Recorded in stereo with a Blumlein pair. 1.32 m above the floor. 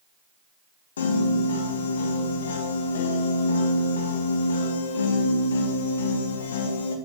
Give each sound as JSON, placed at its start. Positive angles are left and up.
{"t": 1.0, "sound": "a piano", "azimuth_deg": 65, "distance_m": 1.6}